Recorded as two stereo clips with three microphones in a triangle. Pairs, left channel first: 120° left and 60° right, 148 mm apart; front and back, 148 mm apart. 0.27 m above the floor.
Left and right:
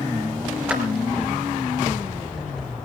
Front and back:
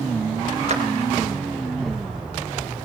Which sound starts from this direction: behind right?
A clap, at 0.7 s.